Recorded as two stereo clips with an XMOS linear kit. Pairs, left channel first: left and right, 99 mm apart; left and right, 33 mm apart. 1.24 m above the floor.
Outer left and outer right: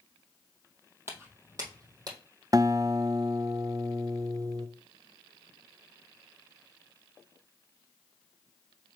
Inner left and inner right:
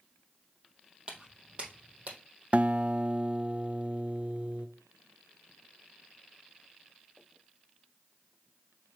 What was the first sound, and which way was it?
Footsteps, 25° right (ahead or behind).